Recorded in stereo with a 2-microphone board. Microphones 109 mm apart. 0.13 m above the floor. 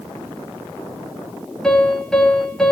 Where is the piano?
5° left (ahead or behind), 3 m.